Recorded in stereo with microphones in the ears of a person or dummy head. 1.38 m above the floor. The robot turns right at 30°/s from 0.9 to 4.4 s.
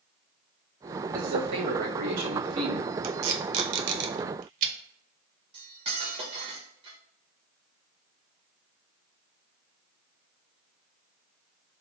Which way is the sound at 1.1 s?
130° right.